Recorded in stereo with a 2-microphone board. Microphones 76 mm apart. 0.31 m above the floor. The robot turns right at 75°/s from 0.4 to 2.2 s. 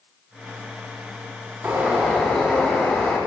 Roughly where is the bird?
Ahead right.